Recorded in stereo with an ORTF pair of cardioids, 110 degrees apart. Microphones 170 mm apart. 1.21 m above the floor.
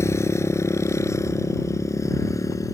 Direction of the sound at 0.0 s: 15° left.